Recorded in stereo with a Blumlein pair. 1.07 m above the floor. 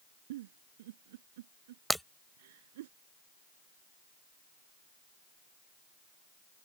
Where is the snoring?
No snoring in this recording.